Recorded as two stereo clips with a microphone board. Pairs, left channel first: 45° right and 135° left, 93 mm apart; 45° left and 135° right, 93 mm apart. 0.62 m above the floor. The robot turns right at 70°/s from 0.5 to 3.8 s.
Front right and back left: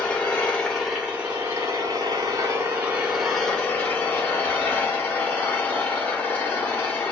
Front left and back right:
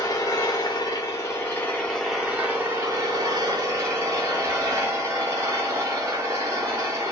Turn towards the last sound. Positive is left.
turn(degrees=-105)